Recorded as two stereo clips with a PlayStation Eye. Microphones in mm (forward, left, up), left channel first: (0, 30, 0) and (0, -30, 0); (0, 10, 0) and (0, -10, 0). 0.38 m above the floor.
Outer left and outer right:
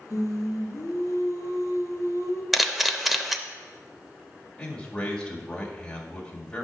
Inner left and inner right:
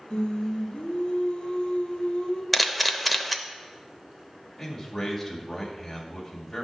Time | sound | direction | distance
0.1 | singing | 60° left (ahead or behind) | 1.3 m
2.5 | a camera shutter | 5° right (ahead or behind) | 0.5 m
4.6 | a man speaking | 15° left (ahead or behind) | 1.8 m